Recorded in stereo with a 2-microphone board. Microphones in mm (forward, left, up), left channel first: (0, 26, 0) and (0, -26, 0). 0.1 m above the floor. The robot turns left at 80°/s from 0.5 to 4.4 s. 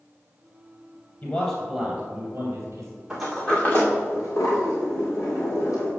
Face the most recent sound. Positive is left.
turn(degrees=80)